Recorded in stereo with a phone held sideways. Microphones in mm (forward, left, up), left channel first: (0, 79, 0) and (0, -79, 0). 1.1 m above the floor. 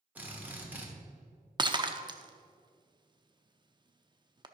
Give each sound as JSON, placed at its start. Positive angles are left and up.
{"t": 0.1, "sound": "a drill", "side_deg": -10, "distance_m": 1.5}
{"t": 1.6, "sound": "breaking glass", "side_deg": -30, "distance_m": 0.6}